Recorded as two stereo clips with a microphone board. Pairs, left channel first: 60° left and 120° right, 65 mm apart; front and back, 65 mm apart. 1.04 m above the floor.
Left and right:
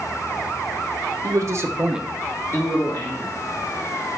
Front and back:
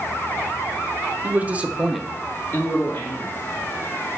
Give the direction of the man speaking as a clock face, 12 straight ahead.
4 o'clock.